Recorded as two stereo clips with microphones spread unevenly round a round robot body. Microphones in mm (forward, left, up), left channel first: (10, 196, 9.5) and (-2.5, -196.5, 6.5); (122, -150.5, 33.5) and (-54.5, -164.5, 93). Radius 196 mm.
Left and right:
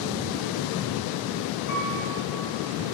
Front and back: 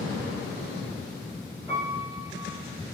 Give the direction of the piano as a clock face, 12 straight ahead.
9 o'clock.